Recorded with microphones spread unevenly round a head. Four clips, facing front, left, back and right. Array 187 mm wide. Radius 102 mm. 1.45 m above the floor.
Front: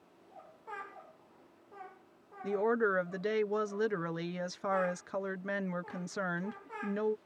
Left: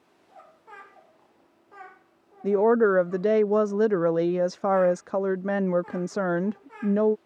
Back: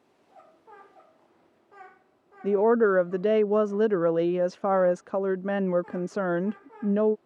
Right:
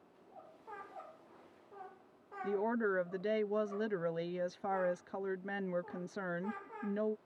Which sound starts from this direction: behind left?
A woman speaking, at 2.4 s.